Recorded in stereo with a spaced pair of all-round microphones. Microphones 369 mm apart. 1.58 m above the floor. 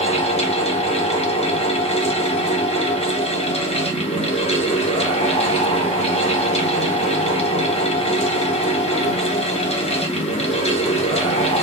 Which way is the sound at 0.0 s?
15° left (ahead or behind).